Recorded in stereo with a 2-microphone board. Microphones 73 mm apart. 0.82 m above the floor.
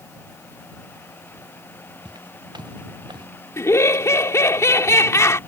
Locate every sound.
2.0 s footsteps: 80° right; by 3.3 s 75° right (ahead or behind)
3.6 s laughter: 40° left (ahead or behind)